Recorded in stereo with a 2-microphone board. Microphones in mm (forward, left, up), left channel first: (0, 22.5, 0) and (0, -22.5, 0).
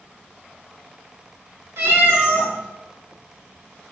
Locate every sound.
1.8 s a cat meowing: 75° right (ahead or behind), 1.4 m